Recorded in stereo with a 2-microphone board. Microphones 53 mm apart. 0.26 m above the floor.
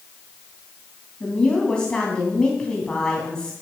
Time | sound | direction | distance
1.2 | a woman speaking | 15° left (ahead or behind) | 2 m